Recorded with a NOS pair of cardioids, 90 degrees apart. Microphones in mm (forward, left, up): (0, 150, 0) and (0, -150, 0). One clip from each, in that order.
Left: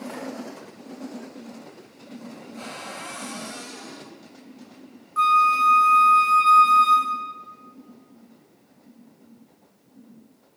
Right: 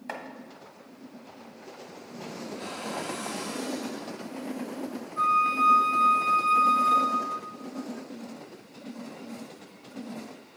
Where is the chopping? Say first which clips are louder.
Right 4 dB; 40° right, 1.5 m.